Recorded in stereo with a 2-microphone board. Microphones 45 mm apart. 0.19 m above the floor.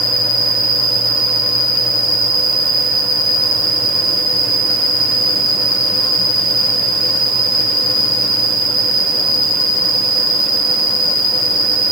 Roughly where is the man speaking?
No man speaking in this recording.